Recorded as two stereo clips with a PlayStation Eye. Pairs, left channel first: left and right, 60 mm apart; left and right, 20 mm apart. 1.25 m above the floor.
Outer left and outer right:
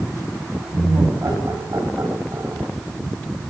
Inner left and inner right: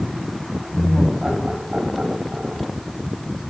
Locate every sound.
0.7 s laughter: 60° right (ahead or behind), 6.5 m; by 2.7 s 50° right (ahead or behind), 5 m